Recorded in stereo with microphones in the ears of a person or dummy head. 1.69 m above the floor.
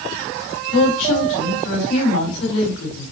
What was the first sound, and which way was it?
A woman speaking, 80° left.